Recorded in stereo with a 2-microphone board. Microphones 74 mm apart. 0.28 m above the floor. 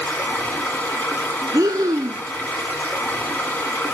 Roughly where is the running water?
Left.